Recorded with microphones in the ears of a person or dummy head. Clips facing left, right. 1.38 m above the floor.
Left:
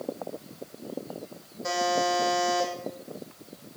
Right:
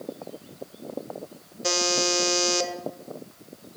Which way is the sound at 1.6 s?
40° right (ahead or behind).